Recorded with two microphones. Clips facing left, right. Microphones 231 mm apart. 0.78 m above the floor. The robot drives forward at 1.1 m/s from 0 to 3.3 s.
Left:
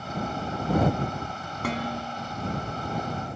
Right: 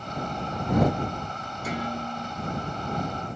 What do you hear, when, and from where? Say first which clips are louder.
1.6 s dishes clattering: left 1 dB; 85° left, 5 m; by 2.3 s 80° left, 5 m